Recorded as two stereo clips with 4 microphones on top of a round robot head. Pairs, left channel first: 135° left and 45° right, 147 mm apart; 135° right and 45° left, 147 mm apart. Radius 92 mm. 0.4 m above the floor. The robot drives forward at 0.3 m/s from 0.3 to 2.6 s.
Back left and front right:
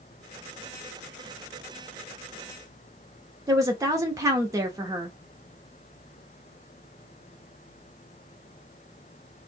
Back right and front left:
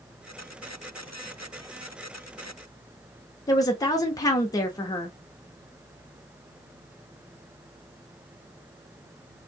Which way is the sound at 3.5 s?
95° right.